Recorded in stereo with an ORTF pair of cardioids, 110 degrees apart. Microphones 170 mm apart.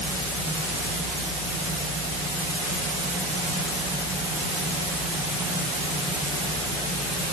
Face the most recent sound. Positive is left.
No sound to turn to.